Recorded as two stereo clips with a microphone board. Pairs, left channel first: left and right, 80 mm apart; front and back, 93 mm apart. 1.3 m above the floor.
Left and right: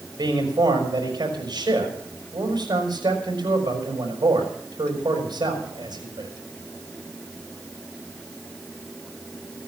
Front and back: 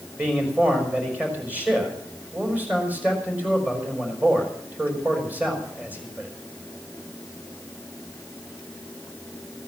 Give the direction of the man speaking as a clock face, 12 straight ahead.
4 o'clock.